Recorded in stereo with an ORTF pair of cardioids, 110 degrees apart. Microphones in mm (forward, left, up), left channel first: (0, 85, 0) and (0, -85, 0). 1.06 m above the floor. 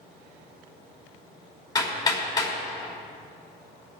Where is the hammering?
25° left, 5 m.